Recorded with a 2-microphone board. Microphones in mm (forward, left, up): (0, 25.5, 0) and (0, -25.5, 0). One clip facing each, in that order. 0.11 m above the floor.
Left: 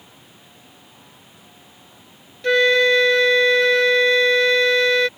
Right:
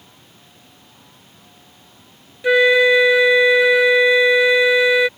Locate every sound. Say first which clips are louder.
2.4 s a flute: right 3 dB; 10° right (ahead or behind)